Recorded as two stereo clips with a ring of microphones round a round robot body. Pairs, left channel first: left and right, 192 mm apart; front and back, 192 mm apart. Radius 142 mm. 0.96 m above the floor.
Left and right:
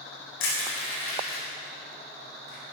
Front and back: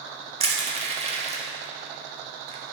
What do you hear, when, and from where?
0.4 s crushing: 120° left, 1.1 m